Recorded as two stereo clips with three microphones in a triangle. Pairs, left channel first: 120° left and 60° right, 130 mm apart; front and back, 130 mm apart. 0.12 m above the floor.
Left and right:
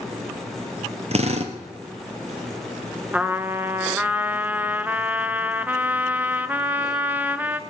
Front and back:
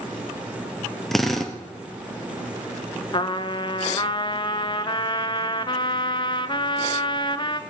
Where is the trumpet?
10° left, 0.5 m.